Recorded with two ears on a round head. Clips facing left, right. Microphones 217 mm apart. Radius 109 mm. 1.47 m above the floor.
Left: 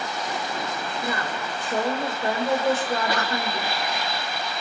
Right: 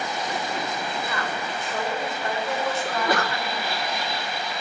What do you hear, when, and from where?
1.0 s a woman speaking: 30° left (ahead or behind), 7.5 m
2.9 s a sneeze: 45° right (ahead or behind), 1.4 m